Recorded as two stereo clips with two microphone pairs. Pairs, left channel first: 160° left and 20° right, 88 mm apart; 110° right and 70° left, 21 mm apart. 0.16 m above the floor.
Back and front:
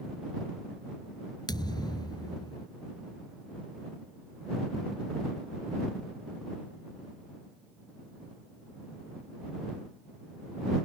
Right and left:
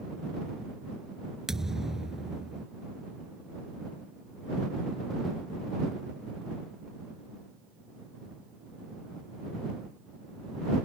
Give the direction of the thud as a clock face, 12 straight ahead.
8 o'clock.